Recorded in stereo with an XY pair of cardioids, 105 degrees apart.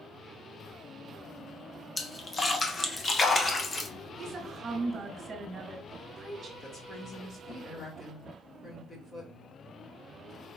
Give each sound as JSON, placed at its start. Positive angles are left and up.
{"t": 2.0, "sound": "a splash", "azimuth_deg": 30, "distance_m": 0.8}
{"t": 4.2, "sound": "a woman speaking", "azimuth_deg": -40, "distance_m": 1.4}
{"t": 6.6, "sound": "a woman speaking", "azimuth_deg": 35, "distance_m": 1.8}